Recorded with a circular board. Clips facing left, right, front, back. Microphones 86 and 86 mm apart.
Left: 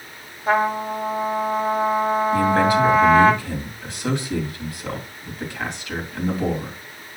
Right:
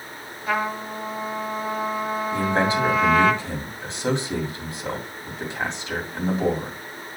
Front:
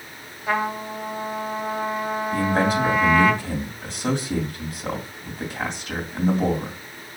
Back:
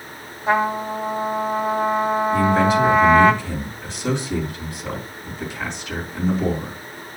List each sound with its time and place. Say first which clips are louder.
0.5 s a trumpet: left 6 dB, back 5 dB; 135° left, 1.0 m
2.3 s a man speaking: left 3 dB, back 3 dB; 30° right, 2.5 m